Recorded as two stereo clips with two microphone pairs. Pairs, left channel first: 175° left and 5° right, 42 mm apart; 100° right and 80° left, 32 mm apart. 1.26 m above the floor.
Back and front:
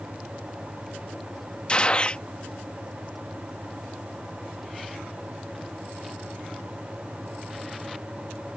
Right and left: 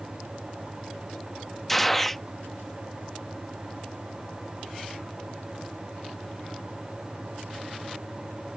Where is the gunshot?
170° right.